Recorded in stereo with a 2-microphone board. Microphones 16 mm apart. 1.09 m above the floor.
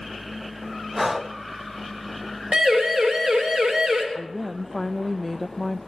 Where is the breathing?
15° right (ahead or behind), 0.9 m.